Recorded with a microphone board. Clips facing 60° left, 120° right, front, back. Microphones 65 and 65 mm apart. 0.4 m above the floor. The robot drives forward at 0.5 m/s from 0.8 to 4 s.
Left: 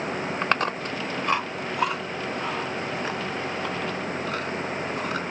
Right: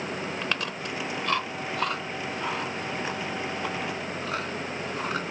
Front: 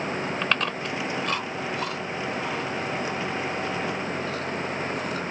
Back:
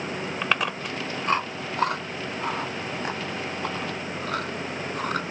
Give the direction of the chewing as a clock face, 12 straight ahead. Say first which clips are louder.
Left 6 dB, back 3 dB; 9 o'clock.